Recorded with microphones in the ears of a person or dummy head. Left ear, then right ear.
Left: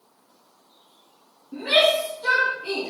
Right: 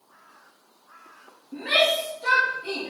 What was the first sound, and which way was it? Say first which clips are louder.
A shout: left 2 dB; 10° right (ahead or behind).